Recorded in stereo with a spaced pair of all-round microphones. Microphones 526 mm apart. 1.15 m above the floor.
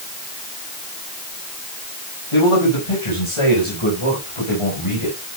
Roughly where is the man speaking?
Left.